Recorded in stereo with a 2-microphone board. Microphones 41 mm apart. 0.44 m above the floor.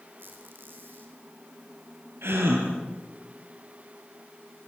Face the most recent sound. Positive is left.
turn(degrees=-85)